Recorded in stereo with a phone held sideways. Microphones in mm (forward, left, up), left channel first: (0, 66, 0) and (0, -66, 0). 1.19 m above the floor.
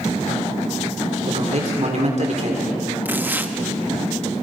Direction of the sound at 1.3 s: 60° right (ahead or behind).